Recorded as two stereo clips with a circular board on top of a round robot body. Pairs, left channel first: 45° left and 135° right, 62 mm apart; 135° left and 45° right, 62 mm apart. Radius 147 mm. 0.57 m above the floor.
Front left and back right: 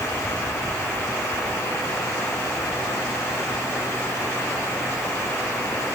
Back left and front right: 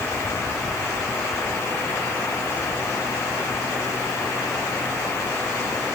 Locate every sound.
Only background noise.